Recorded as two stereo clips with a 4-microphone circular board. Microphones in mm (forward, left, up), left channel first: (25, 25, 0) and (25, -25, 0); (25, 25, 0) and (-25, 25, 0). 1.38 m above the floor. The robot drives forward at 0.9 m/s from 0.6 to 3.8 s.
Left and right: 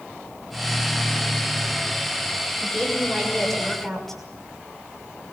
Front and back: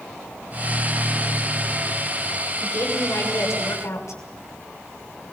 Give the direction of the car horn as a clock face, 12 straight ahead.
I don't hear a car horn.